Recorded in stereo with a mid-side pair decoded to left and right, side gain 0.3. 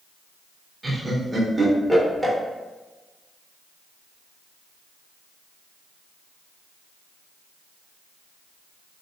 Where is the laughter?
20° right, 1.5 m.